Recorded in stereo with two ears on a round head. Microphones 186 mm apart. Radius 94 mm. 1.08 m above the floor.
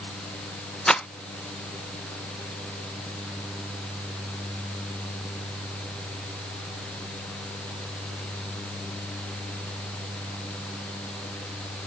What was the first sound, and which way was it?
A rattle, 5° left (ahead or behind).